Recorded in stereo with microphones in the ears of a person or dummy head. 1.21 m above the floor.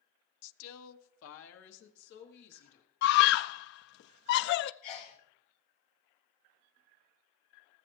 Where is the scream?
60° left (ahead or behind), 0.5 m.